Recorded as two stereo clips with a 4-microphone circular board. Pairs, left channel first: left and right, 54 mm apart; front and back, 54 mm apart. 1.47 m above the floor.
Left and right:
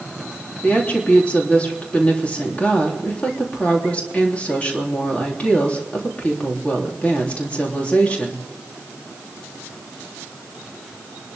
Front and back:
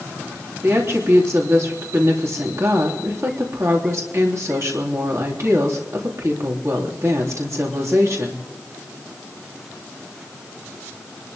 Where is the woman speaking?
155° left, 3.5 m.